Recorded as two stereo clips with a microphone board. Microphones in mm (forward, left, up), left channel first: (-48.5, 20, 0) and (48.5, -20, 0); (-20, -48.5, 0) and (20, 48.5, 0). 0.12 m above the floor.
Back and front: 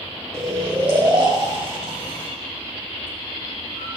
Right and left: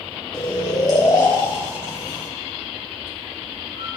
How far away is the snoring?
About 4 m.